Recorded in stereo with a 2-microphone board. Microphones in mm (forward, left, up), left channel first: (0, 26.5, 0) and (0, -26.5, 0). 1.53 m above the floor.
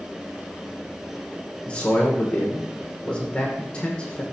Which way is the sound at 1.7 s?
25° left (ahead or behind).